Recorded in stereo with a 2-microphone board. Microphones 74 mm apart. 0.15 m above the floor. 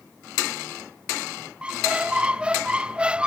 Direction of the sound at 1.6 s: 15° right (ahead or behind).